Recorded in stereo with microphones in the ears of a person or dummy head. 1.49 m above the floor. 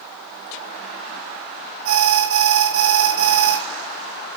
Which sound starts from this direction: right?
An alarm, at 1.9 s.